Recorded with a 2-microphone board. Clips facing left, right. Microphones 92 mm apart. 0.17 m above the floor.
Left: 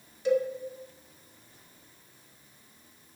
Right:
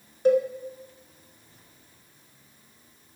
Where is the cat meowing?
I don't hear a cat meowing.